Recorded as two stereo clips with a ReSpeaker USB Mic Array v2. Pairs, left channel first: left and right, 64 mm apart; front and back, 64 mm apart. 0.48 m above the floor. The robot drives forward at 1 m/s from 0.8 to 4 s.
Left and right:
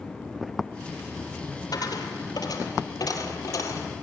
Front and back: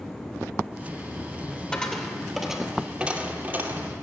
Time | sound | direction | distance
1.7 | a dropped coin | 75° left | 2.5 m